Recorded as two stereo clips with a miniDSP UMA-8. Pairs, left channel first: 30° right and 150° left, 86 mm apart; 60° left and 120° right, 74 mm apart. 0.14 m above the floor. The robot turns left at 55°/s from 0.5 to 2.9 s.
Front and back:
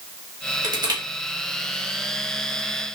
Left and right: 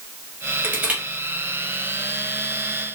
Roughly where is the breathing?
I don't hear breathing.